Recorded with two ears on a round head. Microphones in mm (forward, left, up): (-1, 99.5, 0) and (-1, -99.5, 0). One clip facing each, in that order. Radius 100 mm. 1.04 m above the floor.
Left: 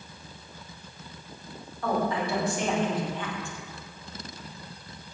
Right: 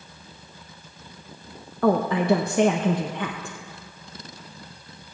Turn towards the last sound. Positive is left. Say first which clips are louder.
# right 7 dB
turn(degrees=-45)  # may be behind; listen again after turning